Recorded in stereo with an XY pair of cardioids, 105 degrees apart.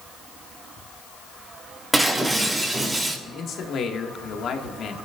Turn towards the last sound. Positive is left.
turn(degrees=65)